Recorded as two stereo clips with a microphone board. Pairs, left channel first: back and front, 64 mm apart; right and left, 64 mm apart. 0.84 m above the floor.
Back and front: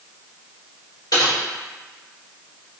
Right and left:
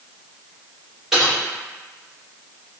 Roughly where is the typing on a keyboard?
Behind.